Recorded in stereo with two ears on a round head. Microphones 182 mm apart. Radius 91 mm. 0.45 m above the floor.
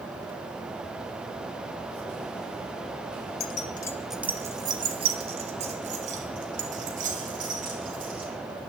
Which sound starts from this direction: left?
Keys jangling, at 3.4 s.